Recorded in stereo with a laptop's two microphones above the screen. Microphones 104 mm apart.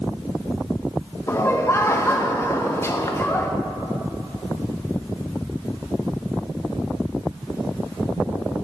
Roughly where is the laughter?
Left.